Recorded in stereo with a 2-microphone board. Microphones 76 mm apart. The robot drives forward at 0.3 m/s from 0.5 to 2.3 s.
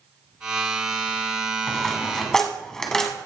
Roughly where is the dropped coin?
Centre.